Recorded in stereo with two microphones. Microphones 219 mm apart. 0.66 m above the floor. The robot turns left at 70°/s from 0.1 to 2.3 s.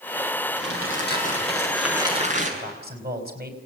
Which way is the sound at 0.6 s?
85° left.